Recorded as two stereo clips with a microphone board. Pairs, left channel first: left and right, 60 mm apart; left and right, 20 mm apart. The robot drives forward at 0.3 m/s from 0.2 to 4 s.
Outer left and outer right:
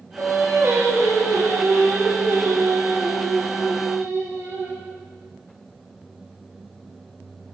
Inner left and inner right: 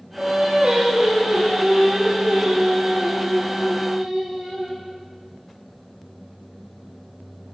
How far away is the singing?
About 9 m.